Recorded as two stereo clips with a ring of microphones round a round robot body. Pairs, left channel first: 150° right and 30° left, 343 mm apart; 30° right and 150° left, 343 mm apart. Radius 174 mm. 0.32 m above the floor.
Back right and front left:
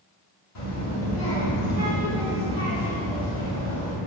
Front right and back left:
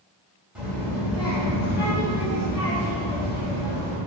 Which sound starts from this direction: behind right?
A child speaking, at 0.6 s.